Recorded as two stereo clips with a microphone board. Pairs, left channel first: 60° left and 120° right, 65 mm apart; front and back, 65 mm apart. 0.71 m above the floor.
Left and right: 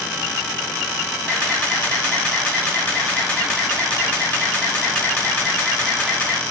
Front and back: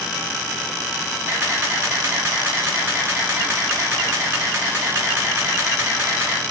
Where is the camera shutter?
135° left, 3 m.